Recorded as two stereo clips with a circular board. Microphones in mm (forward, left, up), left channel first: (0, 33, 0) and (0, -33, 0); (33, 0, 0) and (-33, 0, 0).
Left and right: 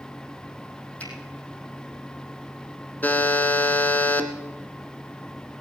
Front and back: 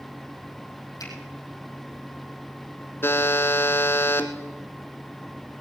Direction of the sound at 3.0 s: 35° left.